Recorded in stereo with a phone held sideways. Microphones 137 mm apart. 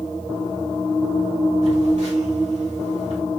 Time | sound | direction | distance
1.6 | a phone buzzing | 60° right (ahead or behind) | 2.5 m